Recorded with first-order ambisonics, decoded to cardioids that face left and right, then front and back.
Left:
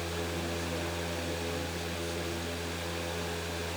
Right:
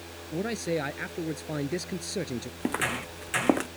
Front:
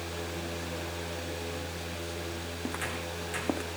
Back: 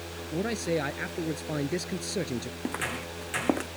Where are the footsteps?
105° right; by 3.7 s 110° right.